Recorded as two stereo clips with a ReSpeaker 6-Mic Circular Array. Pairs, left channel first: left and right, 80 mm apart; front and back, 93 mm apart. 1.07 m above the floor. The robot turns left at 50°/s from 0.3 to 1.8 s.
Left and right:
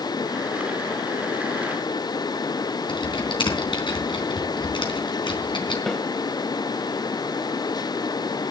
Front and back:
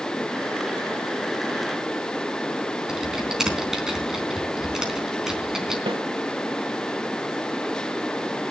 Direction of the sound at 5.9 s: 175° left.